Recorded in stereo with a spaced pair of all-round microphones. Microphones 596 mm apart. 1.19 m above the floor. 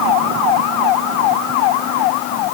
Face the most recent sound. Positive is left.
No sound to turn to.